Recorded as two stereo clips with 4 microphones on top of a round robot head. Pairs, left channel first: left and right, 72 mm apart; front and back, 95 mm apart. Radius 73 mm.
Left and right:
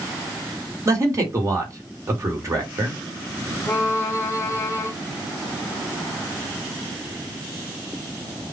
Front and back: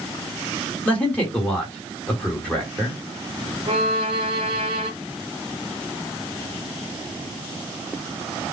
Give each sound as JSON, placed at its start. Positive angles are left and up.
{"t": 0.8, "sound": "a man speaking", "azimuth_deg": -70, "distance_m": 1.8}
{"t": 3.7, "sound": "a violin", "azimuth_deg": 155, "distance_m": 0.8}